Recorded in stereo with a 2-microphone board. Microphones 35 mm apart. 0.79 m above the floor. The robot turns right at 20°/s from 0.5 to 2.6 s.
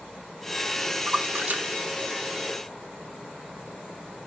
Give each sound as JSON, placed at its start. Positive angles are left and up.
{"t": 1.1, "sound": "a splash", "side_deg": -35, "distance_m": 1.9}